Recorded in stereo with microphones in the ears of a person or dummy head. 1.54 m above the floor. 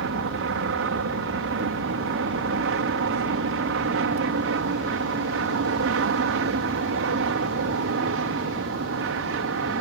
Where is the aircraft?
60° right (ahead or behind).